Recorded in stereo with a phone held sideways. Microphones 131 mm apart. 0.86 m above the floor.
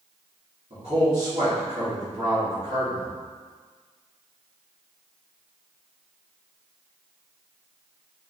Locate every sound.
0.7 s a man speaking: 45° right (ahead or behind), 1.5 m